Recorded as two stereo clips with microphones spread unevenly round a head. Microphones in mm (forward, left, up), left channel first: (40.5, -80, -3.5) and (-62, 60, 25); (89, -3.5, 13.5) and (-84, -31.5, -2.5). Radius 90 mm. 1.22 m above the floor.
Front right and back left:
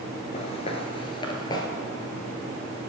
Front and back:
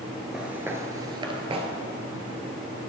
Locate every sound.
0.3 s footsteps: 80° right, 1.3 m; by 1.7 s 125° right, 1.5 m